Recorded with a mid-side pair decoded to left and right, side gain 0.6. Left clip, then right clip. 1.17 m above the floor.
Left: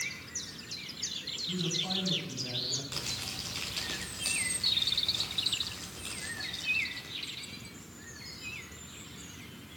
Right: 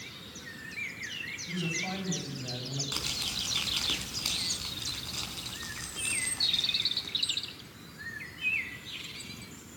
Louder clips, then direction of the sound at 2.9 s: Right 4 dB; 25° right.